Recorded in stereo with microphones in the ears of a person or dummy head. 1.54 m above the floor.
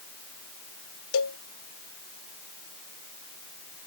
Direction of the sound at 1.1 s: 70° left (ahead or behind).